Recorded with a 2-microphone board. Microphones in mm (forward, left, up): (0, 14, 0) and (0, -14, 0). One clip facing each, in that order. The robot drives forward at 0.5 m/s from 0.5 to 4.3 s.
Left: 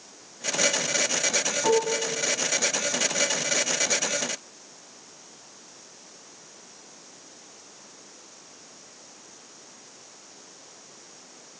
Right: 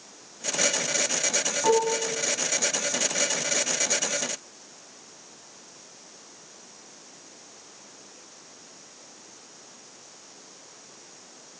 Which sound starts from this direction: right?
Dishes clattering, at 1.6 s.